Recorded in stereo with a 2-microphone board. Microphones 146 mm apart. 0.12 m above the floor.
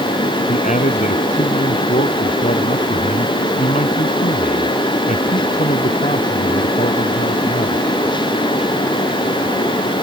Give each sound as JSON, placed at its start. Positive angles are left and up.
{"t": 0.5, "sound": "a man speaking", "side_deg": 55}